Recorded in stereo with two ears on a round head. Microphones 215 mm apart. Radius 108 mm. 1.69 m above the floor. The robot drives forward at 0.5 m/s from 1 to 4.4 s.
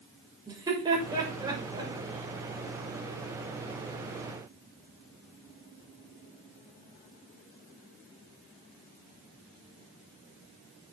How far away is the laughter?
About 6.5 m.